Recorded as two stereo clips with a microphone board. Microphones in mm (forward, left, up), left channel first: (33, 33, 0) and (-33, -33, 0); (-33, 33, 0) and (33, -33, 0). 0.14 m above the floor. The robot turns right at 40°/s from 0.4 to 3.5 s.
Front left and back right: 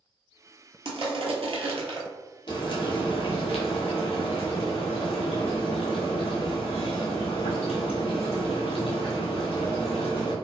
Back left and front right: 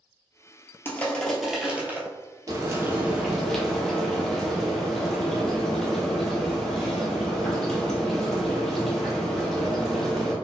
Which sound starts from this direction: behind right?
Crushing, at 0.8 s.